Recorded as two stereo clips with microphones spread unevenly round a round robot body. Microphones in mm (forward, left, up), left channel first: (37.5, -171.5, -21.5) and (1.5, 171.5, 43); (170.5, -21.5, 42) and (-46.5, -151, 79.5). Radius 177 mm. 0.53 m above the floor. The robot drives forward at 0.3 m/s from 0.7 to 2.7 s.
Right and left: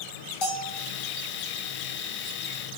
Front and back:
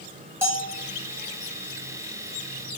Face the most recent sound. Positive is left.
turn(degrees=-75)